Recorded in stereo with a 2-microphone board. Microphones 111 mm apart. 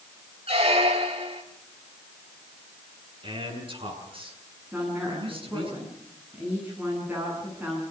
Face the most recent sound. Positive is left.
turn(degrees=-15)  # may be behind; listen again after turning